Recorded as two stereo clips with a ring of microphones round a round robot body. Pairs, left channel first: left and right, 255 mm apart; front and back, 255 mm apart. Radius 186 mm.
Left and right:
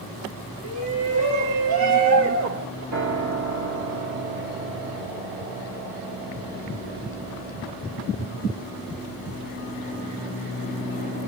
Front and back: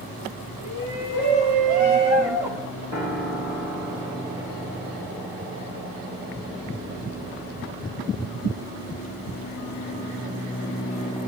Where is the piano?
100° right, 4.5 m.